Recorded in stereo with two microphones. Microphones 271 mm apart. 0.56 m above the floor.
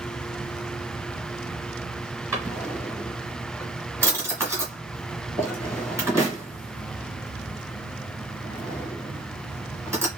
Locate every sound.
2.3 s a drawer: 10° right (ahead or behind), 1.7 m